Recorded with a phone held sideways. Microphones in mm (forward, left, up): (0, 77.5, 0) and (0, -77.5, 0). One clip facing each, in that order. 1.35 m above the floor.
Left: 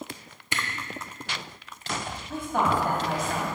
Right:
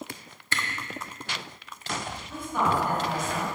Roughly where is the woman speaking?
Left.